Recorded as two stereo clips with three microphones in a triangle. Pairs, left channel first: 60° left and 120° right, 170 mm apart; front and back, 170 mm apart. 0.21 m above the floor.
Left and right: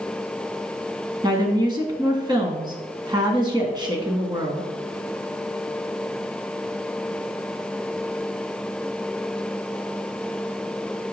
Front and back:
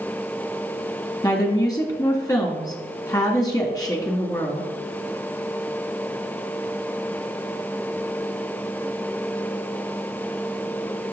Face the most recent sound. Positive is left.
turn(degrees=-60)